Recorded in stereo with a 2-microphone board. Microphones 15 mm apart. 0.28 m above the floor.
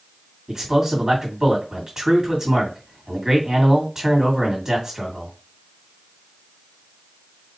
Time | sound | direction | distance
0.5 | a man speaking | 35° right (ahead or behind) | 2.5 m